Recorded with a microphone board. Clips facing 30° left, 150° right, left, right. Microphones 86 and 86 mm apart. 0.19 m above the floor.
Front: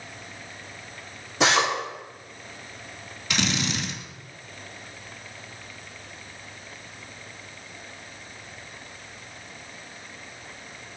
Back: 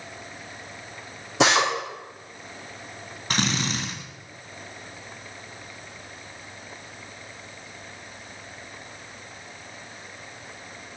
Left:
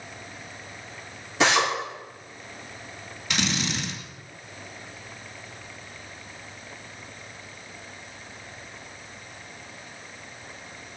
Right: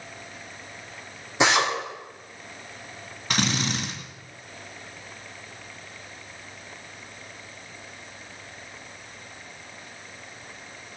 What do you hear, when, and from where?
1.4 s a drill: 160° right, 9 m
3.3 s a drill: 115° right, 2.5 m